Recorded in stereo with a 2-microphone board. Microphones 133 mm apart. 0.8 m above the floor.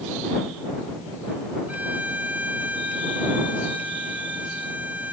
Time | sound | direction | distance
1.7 | a violin | 10° right (ahead or behind) | ?